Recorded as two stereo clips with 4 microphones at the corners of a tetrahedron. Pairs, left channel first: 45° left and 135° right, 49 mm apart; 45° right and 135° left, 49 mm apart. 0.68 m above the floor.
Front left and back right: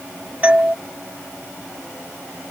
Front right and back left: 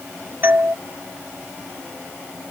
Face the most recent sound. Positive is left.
turn(degrees=170)